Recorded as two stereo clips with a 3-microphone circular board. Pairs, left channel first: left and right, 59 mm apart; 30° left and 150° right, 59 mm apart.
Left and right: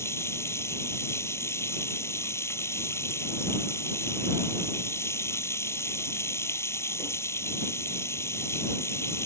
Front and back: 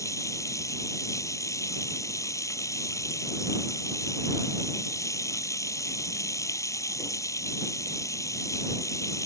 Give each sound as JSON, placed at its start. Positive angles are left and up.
{"t": 0.0, "sound": "running water", "azimuth_deg": 55}